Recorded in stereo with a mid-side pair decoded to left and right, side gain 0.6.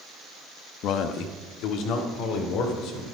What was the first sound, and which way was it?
A man speaking, 65° left.